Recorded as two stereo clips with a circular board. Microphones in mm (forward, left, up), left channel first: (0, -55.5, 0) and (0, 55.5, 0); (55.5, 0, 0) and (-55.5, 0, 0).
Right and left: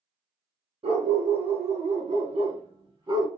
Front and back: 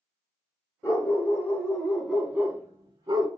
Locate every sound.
0.8 s a dog barking: 65° left, 1.2 m; by 3.3 s 140° left, 0.8 m